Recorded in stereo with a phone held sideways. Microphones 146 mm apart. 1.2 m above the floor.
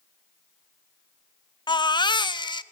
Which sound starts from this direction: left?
A baby crying, at 1.7 s.